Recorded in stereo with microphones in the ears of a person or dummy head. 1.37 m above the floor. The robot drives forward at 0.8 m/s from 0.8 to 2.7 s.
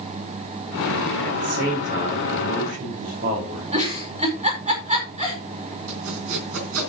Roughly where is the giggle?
Right.